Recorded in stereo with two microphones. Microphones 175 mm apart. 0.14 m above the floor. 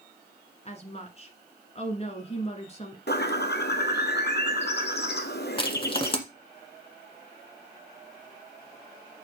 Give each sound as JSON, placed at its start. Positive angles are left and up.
{"t": 0.7, "sound": "a woman speaking", "side_deg": 35, "distance_m": 1.4}
{"t": 3.1, "sound": "a bird", "side_deg": 75, "distance_m": 1.0}
{"t": 5.6, "sound": "crushing", "side_deg": 30, "distance_m": 1.4}